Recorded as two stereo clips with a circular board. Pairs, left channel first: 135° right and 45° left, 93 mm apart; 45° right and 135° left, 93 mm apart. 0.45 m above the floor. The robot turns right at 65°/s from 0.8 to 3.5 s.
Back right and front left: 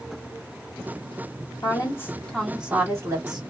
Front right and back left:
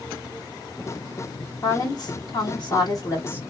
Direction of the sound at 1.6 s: 100° right.